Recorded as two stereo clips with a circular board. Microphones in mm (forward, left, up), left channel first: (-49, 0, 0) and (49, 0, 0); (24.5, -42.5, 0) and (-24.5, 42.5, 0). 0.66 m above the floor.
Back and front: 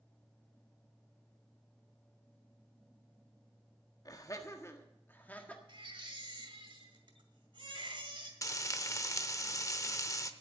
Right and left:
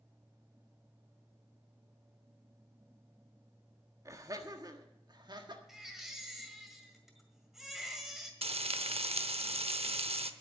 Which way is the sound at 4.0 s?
155° left.